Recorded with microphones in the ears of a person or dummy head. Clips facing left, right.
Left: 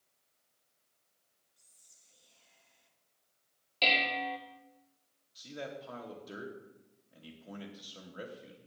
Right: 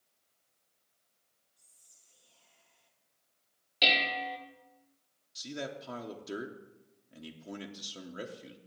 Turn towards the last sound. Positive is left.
turn(degrees=-30)  # may be behind; listen again after turning